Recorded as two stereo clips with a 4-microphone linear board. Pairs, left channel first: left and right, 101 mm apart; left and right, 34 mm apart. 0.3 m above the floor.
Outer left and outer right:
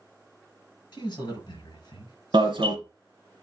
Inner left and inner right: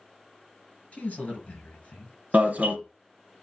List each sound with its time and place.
0.9 s a man speaking: 40° left (ahead or behind), 4.5 m
2.3 s an alarm: 50° right (ahead or behind), 1.8 m